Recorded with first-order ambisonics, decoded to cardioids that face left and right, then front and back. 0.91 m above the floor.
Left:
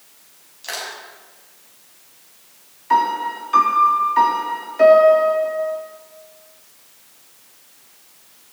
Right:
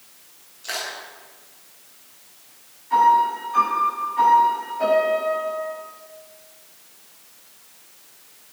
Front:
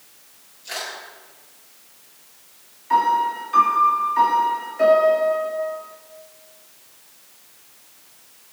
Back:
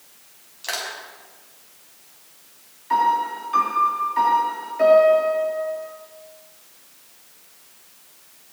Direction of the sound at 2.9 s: 90° left.